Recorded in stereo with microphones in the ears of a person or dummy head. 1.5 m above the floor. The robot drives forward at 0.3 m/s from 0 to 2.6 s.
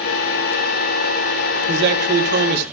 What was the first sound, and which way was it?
A man speaking, 65° right (ahead or behind).